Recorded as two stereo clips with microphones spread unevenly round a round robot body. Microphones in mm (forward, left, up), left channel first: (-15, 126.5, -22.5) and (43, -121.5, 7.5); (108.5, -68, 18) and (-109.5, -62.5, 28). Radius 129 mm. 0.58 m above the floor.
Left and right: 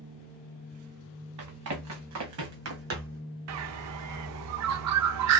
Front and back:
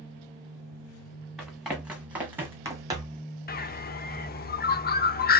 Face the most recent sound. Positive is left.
turn(degrees=-50)